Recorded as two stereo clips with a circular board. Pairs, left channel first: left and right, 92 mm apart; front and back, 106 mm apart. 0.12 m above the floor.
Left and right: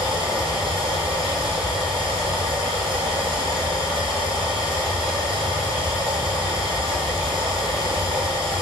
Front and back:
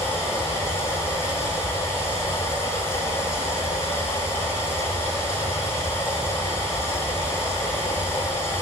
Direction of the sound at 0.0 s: 65° right.